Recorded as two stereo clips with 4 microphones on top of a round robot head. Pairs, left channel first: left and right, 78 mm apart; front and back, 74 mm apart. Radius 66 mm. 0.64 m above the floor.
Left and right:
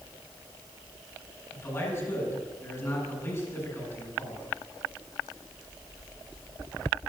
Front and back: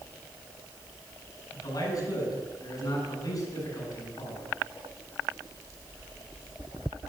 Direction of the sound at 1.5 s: 35° left.